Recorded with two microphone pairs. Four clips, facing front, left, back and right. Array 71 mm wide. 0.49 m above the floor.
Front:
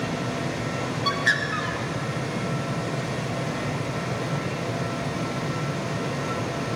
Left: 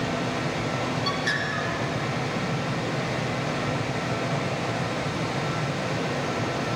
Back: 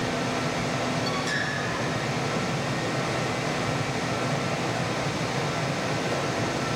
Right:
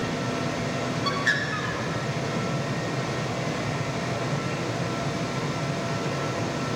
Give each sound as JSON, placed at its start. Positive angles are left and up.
{"t": 1.1, "sound": "a bird", "azimuth_deg": -25, "distance_m": 2.0}